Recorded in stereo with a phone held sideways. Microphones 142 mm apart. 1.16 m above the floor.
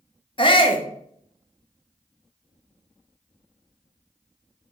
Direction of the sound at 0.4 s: 35° left (ahead or behind).